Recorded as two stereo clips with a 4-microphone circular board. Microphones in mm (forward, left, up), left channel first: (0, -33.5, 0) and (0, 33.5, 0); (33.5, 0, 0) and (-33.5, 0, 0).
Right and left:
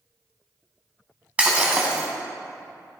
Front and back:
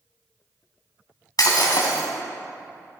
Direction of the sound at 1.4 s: 15° left.